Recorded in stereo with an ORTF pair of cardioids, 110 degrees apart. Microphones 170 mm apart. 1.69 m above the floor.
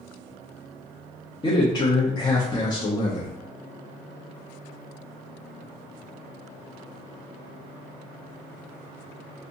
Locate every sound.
1.4 s a man speaking: 25° left, 0.8 m